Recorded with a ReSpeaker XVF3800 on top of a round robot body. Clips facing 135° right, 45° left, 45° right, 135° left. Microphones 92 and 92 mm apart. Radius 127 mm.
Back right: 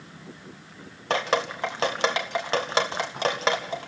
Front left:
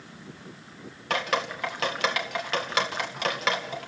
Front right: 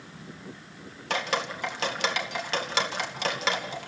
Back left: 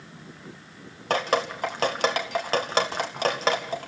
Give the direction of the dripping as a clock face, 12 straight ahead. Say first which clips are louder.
Back right 3 dB, back left 5 dB; 6 o'clock.